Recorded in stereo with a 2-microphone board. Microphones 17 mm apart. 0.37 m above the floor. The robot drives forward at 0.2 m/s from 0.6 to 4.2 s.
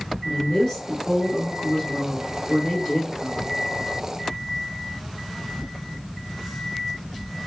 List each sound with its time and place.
0.2 s a woman speaking: 30° left (ahead or behind), 1.5 m